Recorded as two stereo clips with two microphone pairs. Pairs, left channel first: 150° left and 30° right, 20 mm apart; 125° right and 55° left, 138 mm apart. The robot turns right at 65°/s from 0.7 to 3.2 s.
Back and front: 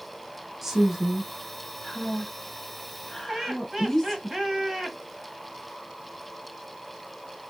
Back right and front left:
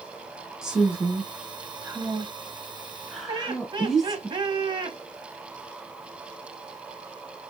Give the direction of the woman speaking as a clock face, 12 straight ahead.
1 o'clock.